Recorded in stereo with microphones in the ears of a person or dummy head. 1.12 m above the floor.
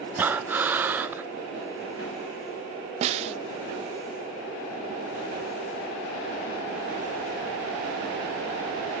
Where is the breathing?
10° right (ahead or behind), 0.6 m.